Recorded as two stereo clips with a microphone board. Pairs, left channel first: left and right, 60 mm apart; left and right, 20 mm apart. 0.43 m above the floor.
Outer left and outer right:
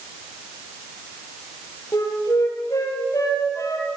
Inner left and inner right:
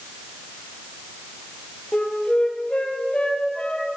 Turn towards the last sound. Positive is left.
turn(degrees=65)  # may be behind; listen again after turning